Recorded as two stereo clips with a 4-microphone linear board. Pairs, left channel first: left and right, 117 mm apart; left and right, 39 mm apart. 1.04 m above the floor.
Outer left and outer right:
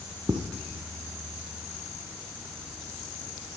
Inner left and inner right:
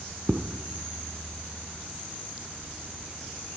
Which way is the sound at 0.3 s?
40° right (ahead or behind).